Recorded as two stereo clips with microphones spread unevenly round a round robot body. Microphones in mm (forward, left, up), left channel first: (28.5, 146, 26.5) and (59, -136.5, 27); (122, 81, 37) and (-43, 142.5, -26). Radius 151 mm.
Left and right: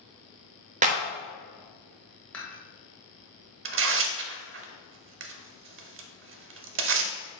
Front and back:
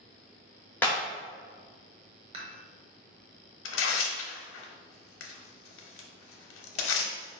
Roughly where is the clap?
Behind right.